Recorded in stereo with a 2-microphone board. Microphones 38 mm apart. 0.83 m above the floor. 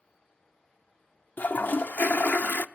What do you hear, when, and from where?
1.4 s a toilet flushing: 55° left (ahead or behind), 0.7 m